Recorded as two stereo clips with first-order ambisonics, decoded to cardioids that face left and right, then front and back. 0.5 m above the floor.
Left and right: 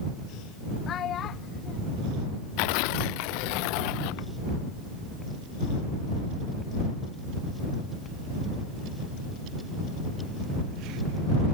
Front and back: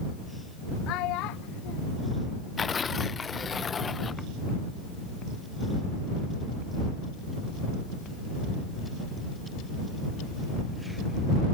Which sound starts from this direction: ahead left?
A child speaking, at 0.9 s.